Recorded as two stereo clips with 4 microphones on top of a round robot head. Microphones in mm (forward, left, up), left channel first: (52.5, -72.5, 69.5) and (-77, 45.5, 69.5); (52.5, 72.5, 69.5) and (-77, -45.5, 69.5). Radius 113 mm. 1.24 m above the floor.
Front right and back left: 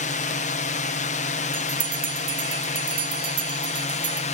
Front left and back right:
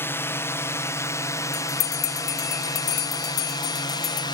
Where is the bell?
75° left.